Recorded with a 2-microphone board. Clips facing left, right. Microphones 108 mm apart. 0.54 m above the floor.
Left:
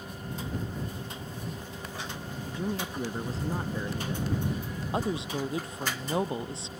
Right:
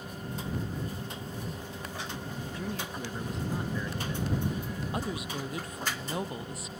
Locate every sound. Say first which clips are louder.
2.5 s a man speaking: left 6 dB; 25° left (ahead or behind); by 4.4 s 40° left (ahead or behind)
4.9 s a woman speaking: left 7 dB; 25° left (ahead or behind)